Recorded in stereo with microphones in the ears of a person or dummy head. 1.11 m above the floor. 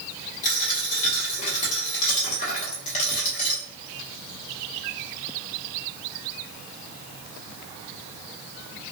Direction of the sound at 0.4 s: 45° left (ahead or behind).